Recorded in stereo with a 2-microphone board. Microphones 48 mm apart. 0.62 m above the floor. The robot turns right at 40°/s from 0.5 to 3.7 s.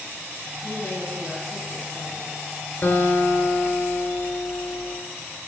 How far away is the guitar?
About 2.5 m.